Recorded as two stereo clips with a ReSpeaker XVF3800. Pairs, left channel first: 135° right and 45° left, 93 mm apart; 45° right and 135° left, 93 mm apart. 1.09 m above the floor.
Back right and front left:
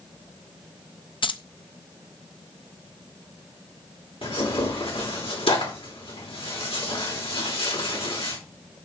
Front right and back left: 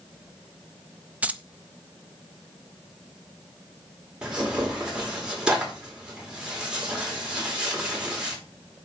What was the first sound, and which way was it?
Keys jangling, 150° right.